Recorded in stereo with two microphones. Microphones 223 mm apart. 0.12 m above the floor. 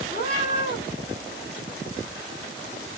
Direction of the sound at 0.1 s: 45° left (ahead or behind).